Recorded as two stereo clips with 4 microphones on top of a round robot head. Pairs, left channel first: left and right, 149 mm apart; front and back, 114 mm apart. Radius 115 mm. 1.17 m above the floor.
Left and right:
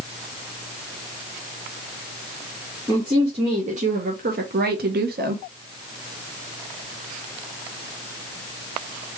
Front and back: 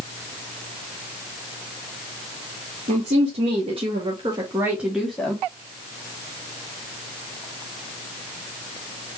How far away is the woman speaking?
About 1.3 m.